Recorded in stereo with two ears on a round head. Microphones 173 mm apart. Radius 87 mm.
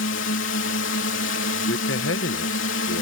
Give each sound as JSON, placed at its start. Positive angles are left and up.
{"t": 0.0, "sound": "a drone", "side_deg": 75}
{"t": 1.7, "sound": "a man speaking", "side_deg": 65}